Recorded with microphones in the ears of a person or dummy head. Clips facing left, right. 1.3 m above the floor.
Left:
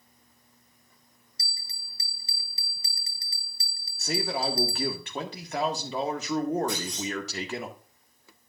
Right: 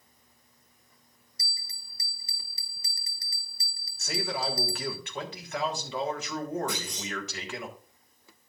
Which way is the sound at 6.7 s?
20° right (ahead or behind).